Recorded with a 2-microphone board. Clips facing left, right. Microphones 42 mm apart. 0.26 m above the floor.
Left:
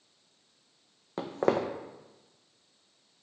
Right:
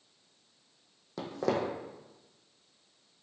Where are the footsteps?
40° left (ahead or behind), 0.5 m.